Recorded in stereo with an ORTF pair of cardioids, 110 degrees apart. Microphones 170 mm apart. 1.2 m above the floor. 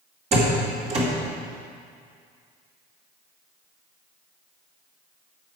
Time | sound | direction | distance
0.3 | a door slam | 40° right | 2.5 m